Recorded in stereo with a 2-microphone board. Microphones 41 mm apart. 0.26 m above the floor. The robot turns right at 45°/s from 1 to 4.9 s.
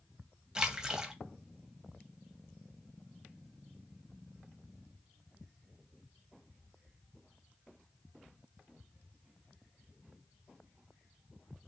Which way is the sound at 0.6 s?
15° right (ahead or behind).